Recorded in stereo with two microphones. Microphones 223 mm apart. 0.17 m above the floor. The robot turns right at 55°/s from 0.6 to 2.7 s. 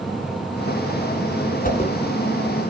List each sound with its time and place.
1.6 s a whoosh: 40° left (ahead or behind), 1.1 m; by 1.9 s 35° left (ahead or behind), 1.1 m